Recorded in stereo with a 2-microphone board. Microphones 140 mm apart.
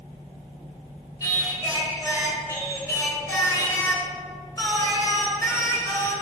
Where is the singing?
20° left (ahead or behind), 1.3 m.